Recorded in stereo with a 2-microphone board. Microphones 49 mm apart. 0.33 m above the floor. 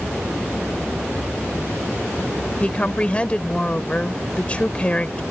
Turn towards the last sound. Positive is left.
turn(degrees=25)  # may be behind; listen again after turning